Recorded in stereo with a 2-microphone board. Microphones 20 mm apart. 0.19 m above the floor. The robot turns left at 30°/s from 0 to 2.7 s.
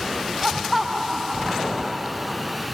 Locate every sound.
0.4 s laughter: 10° right; by 2.6 s 75° right